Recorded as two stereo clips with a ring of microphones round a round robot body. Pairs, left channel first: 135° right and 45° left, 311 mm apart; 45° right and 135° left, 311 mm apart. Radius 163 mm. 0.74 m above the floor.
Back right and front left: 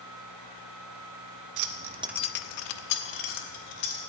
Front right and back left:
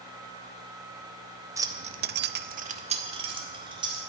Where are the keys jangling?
55° left, 0.9 m; by 4.0 s 150° right, 2.5 m.